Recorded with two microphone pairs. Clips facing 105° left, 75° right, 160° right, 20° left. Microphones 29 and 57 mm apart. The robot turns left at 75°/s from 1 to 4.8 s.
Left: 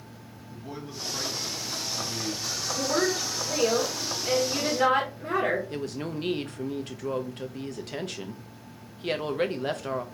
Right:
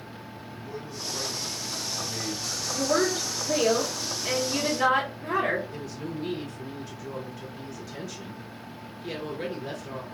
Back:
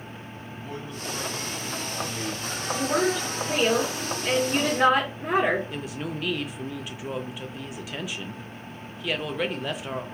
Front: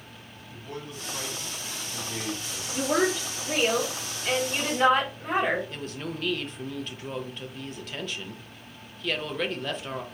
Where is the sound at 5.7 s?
120° left, 0.6 m.